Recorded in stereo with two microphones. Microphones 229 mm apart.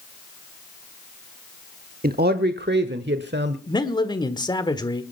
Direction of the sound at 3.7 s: 20° left (ahead or behind).